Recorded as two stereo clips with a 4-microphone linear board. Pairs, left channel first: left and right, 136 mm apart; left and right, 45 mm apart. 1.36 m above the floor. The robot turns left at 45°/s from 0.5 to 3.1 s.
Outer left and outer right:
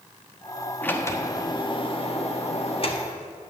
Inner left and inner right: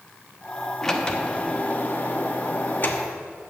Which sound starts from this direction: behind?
A sliding door, at 0.8 s.